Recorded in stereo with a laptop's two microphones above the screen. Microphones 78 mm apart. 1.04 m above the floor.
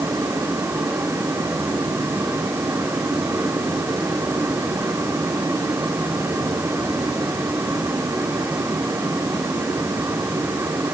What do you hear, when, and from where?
0.0 s a fan: 35° right (ahead or behind), 5.5 m